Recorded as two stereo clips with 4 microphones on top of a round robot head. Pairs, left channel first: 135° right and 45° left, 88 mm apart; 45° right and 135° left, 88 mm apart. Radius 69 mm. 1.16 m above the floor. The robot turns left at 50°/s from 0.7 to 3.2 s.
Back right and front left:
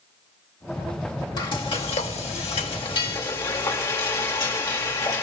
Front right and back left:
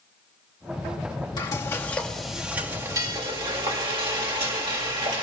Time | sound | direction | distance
1.4 | frying | 95° right | 2 m